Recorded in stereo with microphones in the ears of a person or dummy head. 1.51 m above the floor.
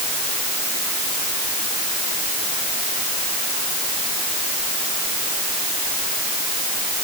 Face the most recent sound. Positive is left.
No sound to turn to.